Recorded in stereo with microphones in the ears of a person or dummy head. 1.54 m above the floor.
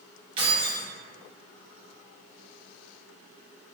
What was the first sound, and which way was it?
Keys jangling, 30° right (ahead or behind).